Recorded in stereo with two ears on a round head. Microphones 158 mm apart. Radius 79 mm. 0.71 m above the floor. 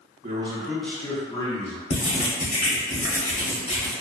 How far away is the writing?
About 1.0 m.